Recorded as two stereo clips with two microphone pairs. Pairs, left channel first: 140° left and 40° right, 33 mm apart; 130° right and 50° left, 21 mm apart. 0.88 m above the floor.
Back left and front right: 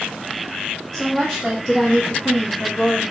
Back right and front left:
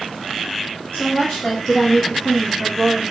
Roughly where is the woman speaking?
Behind right.